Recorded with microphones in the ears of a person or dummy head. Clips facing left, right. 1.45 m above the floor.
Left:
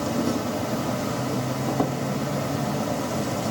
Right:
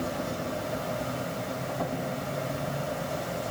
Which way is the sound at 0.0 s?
65° left (ahead or behind).